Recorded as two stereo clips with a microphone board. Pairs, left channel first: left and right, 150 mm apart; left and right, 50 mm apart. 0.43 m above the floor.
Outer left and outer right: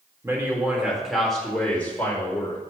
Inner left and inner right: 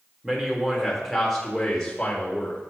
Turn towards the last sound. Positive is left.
turn(degrees=20)  # may be behind; listen again after turning